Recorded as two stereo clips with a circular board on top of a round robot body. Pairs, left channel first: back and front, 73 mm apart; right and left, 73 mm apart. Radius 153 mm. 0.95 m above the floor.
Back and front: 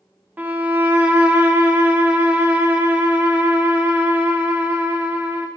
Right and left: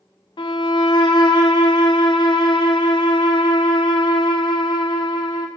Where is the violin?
70° right, 0.5 m.